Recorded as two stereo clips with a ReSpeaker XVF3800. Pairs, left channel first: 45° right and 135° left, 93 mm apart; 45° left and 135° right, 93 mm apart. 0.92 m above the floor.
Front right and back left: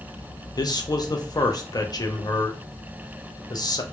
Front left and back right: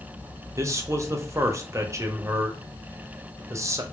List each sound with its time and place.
0.6 s a man speaking: 80° right, 0.5 m